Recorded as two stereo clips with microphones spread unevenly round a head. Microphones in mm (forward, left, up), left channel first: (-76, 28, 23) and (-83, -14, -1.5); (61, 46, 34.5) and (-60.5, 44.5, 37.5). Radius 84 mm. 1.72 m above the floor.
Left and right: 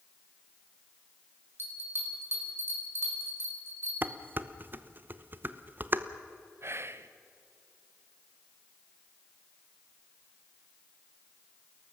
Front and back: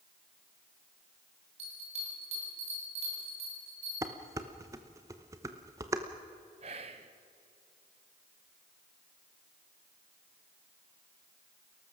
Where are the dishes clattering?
150° right, 0.9 m.